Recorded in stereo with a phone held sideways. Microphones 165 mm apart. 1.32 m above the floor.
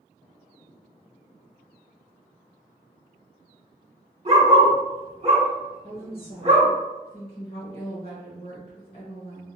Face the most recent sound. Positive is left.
turn(degrees=35)  # may be behind; listen again after turning